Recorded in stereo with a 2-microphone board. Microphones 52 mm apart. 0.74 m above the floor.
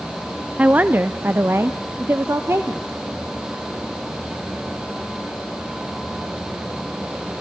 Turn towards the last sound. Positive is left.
turn(degrees=-60)  # may be behind; listen again after turning